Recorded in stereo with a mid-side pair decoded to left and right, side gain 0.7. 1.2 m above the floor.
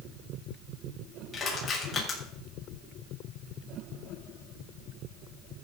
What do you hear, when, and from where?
1.3 s crushing: 30° left, 7 m